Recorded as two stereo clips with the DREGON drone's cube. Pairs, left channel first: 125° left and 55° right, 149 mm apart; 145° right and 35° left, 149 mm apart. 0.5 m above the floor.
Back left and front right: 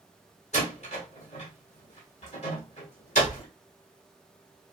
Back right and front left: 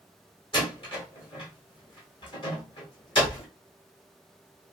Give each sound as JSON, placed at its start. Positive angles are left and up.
{"t": 0.5, "sound": "a door slam", "azimuth_deg": 160, "distance_m": 1.3}